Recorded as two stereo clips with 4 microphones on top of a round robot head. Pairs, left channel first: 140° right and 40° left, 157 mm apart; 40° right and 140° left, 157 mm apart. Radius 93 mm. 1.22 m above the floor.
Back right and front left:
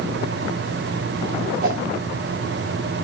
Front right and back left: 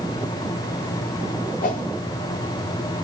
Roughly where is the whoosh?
Ahead.